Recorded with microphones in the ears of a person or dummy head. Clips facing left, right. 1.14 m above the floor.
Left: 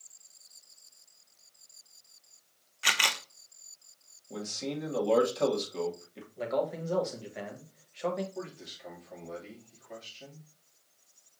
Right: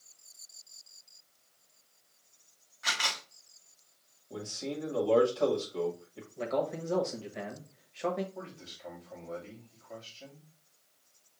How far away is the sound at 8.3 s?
About 2.5 m.